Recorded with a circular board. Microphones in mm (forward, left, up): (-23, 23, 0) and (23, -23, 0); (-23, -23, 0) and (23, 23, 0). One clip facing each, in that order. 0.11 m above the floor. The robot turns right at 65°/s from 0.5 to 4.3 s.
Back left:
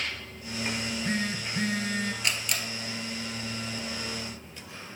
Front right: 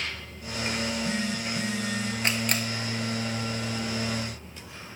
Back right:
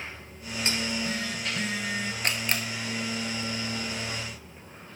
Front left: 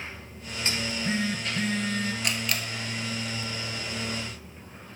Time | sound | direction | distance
0.8 | a phone buzzing | 80° left | 0.9 m
2.2 | a camera shutter | 95° right | 0.9 m